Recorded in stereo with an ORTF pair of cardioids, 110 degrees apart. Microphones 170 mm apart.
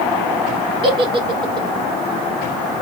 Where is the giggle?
30° right, 0.7 m.